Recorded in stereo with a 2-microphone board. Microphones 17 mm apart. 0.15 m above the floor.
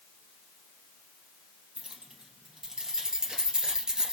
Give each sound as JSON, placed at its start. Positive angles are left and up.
{"t": 1.8, "sound": "keys jangling", "side_deg": -45, "distance_m": 3.0}